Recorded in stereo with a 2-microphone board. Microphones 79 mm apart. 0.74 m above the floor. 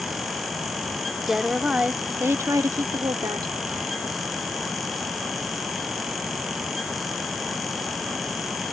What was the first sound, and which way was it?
A woman speaking, centre (ahead or behind).